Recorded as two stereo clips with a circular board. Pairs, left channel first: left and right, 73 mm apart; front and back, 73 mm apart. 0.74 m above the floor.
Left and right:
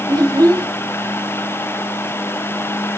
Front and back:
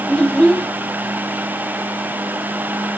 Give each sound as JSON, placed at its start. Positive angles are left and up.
{"t": 0.1, "sound": "a child speaking", "azimuth_deg": -80, "distance_m": 1.6}